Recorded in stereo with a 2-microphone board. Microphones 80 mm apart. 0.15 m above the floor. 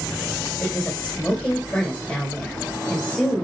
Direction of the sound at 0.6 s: 20° left (ahead or behind).